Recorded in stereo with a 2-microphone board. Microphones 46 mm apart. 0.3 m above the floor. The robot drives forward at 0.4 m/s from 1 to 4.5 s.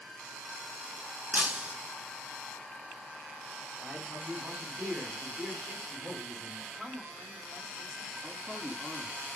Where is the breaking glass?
30° right (ahead or behind), 1.0 m; by 1.8 s 25° right (ahead or behind), 1.1 m.